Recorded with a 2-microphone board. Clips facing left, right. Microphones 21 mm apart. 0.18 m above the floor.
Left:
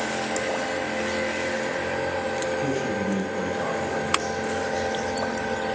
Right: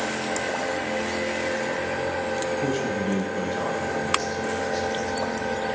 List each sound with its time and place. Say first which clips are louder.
2.6 s a man speaking: even; 35° right (ahead or behind), 4 m; by 4.9 s 45° right (ahead or behind), 6 m